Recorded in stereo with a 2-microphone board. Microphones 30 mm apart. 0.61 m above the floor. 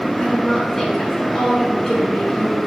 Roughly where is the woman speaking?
Centre.